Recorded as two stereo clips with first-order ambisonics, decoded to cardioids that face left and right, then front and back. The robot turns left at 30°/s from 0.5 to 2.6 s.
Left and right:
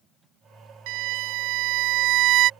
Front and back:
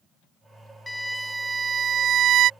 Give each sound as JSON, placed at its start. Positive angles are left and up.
{"t": 0.9, "sound": "a violin", "azimuth_deg": -80}